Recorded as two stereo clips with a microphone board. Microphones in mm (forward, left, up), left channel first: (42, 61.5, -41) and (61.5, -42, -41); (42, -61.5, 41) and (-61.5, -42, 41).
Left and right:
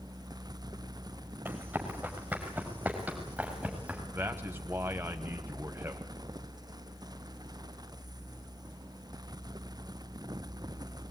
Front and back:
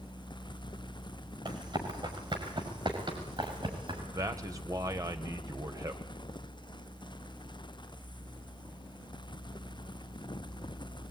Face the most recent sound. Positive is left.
turn(degrees=-140)